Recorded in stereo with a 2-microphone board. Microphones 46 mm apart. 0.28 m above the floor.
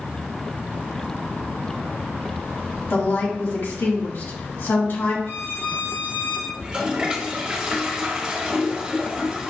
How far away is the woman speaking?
About 1.8 m.